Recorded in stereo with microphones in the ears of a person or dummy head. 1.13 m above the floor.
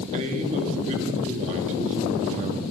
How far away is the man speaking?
About 1.9 m.